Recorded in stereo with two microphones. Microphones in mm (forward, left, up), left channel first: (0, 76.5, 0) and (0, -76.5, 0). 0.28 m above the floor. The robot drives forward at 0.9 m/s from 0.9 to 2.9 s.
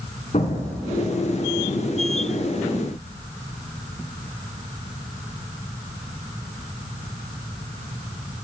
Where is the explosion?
50° left (ahead or behind), 2.5 m; by 1.1 s 55° left (ahead or behind), 2.5 m.